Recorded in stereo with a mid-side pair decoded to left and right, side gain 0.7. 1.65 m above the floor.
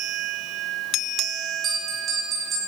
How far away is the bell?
About 5 m.